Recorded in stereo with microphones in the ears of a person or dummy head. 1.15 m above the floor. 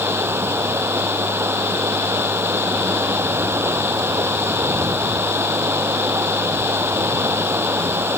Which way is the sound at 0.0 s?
5° right (ahead or behind).